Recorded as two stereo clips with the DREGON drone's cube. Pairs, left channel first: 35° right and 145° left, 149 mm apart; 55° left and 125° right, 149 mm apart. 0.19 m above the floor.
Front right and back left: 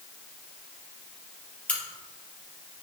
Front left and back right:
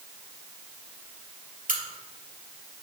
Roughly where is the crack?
Behind right.